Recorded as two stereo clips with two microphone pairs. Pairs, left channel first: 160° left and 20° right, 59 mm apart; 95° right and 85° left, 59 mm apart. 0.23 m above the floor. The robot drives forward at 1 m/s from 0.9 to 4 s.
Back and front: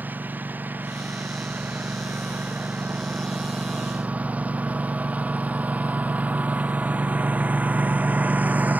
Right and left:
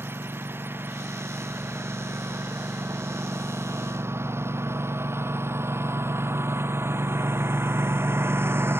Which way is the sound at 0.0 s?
35° left.